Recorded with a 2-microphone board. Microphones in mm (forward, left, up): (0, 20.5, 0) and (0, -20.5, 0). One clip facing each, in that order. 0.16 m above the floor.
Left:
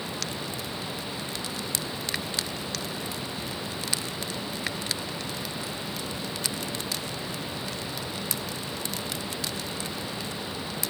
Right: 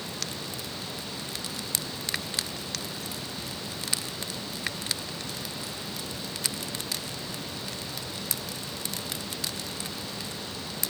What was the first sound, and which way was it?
Only background noise.